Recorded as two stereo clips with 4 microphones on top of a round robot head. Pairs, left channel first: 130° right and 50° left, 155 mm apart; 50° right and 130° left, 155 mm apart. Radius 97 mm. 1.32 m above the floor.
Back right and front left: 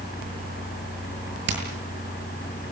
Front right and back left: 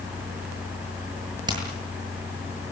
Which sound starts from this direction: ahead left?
Hammering, at 1.5 s.